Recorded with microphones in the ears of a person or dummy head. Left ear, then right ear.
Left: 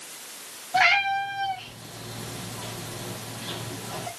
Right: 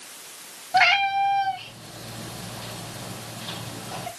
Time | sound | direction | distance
0.7 | a cat meowing | 25° right (ahead or behind) | 2.5 m